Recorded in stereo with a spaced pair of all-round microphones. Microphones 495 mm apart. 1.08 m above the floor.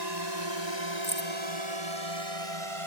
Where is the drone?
50° right (ahead or behind); by 2.9 s 75° right (ahead or behind).